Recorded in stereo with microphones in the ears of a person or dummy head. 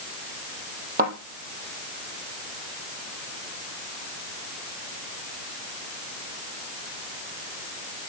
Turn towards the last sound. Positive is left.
turn(degrees=-50)  # may be behind; listen again after turning